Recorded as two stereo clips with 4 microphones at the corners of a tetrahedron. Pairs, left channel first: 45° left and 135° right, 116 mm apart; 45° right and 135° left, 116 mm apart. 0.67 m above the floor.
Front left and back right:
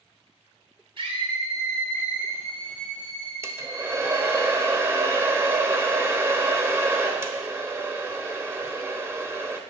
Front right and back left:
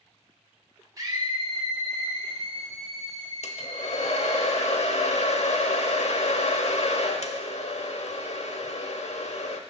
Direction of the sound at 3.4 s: 65° right.